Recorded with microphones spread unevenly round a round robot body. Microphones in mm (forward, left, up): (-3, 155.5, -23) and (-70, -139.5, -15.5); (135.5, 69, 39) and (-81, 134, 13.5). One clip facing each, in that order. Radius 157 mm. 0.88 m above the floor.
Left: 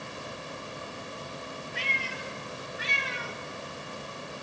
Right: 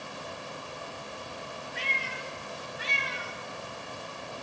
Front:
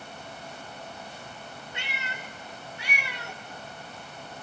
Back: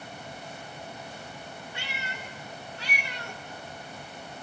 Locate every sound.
1.7 s a cat meowing: 50° left, 2.5 m; by 3.4 s 65° left, 1.7 m